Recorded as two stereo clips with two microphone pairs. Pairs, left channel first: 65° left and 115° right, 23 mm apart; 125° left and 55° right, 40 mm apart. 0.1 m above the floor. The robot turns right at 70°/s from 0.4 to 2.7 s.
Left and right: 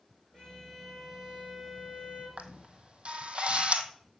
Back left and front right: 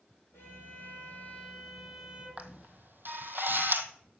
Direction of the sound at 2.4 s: 105° right.